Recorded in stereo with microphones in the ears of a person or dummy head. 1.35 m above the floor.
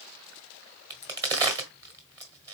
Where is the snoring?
I don't hear snoring.